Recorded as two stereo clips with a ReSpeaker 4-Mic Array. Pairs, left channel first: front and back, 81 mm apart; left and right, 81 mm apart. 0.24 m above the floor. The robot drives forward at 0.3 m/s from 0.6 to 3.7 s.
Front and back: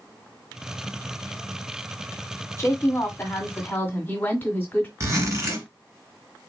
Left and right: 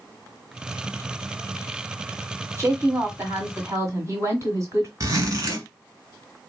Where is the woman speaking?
50° right, 1.8 m; by 4.9 s 60° right, 1.6 m.